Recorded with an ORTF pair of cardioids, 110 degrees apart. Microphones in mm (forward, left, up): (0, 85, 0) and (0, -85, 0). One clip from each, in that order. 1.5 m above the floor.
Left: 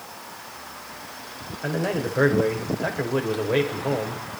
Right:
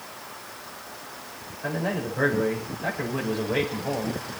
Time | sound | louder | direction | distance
1.6 | a man speaking | left 3 dB | 40° left | 5.5 m